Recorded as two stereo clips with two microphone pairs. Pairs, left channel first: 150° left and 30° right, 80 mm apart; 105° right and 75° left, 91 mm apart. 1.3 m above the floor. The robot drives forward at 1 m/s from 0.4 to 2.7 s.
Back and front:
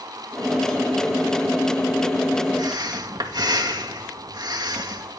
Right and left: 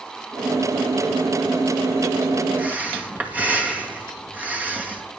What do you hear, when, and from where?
2.6 s breathing: straight ahead, 2.5 m